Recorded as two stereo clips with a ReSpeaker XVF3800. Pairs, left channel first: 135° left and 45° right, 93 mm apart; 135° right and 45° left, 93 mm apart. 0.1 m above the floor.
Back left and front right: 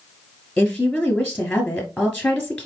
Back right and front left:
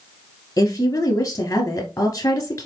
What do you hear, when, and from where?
0.6 s a woman speaking: 150° right, 1.2 m